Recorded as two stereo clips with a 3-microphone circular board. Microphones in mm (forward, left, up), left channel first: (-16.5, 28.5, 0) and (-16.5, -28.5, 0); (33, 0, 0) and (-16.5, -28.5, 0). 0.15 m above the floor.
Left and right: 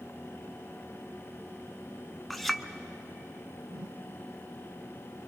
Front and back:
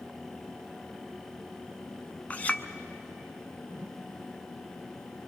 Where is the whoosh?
110° right, 0.9 m.